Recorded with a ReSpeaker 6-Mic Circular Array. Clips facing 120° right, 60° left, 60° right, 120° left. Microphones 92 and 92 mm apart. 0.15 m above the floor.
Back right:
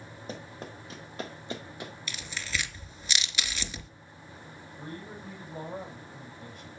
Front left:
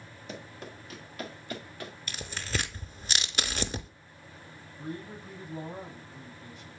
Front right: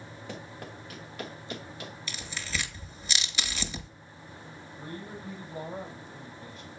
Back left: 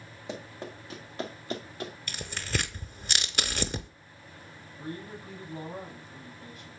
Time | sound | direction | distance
0.3 | running footsteps | 170° right | 2.5 m
2.1 | tearing paper | 100° left | 0.6 m
4.8 | a man speaking | 120° right | 5.5 m